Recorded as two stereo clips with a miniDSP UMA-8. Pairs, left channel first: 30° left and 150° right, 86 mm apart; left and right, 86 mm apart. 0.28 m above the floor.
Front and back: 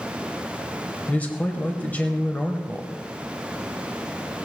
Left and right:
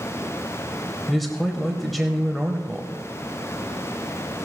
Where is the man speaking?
Straight ahead, 0.9 m.